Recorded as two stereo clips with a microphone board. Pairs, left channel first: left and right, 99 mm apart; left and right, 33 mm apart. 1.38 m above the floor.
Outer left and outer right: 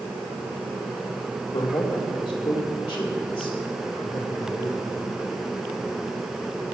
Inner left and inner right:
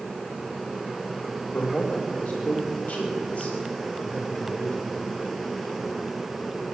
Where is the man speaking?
35° left (ahead or behind), 2.5 m.